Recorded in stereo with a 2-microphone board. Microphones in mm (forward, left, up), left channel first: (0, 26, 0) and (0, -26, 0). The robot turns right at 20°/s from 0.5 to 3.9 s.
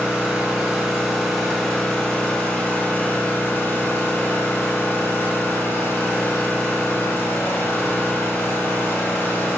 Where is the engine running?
20° right, 1.0 m; by 9.6 s 50° left, 1.0 m.